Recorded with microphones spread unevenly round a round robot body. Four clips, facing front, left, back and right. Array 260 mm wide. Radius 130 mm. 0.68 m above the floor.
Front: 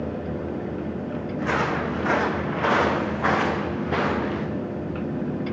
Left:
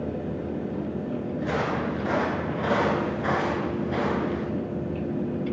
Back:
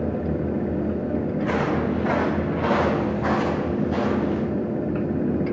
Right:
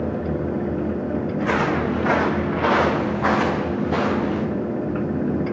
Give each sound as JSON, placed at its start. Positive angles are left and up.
{"t": 1.4, "sound": "footsteps", "azimuth_deg": -65, "distance_m": 7.5}